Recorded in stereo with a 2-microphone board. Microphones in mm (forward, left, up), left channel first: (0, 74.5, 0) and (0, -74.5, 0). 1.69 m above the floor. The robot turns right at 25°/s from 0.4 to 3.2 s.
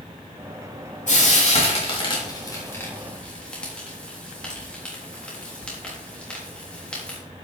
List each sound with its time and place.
1.1 s frying: 60° left (ahead or behind), 3.5 m; by 7.2 s 5° left (ahead or behind), 3.5 m